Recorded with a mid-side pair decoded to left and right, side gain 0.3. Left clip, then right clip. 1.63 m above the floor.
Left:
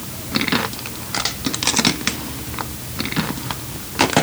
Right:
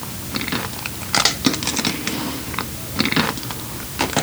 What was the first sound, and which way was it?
Only background noise.